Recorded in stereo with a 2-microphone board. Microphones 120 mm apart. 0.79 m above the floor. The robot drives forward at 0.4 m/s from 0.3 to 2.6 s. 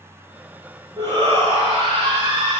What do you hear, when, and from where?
1.0 s a shout: 40° right (ahead or behind), 2 m; by 2.6 s 50° right (ahead or behind), 1.8 m